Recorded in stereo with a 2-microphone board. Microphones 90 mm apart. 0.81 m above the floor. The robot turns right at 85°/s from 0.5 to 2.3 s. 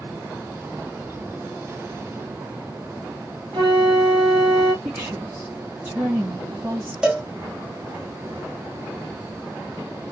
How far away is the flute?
About 1.0 m.